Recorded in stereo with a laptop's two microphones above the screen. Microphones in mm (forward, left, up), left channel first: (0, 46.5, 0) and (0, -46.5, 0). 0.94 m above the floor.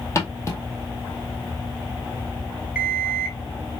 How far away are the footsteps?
About 2.0 m.